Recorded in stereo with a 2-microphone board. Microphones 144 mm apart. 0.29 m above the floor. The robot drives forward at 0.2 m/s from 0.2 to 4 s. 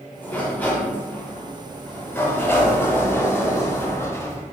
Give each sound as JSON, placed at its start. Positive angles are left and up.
{"t": 0.2, "sound": "a sliding door", "side_deg": 10, "distance_m": 1.2}